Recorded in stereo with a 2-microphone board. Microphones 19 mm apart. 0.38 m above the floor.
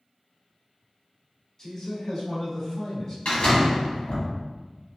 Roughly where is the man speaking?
Left.